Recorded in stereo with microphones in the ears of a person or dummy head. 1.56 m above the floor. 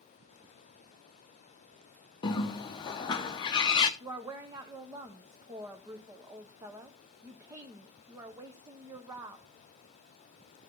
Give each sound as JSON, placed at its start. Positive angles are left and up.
{"t": 2.2, "sound": "a bird", "side_deg": 30, "distance_m": 0.7}
{"t": 4.0, "sound": "a woman speaking", "side_deg": -20, "distance_m": 0.8}